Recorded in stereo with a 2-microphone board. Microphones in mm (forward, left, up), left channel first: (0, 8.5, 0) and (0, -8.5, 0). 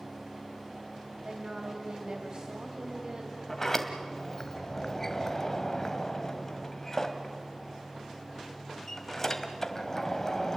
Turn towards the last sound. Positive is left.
turn(degrees=20)  # may be behind; listen again after turning